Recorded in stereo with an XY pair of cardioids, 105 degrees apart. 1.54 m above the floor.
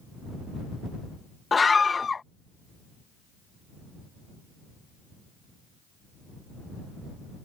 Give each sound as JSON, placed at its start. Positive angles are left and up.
{"t": 1.5, "sound": "a scream", "azimuth_deg": 30}